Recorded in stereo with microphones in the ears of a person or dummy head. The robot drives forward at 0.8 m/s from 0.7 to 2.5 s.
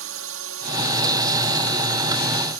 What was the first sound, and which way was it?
A drone, 65° right (ahead or behind).